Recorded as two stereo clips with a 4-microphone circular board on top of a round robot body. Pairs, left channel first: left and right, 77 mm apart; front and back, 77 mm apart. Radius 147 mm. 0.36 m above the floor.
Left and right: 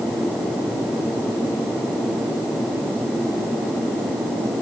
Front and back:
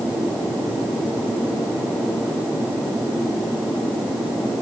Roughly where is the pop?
I don't hear a pop.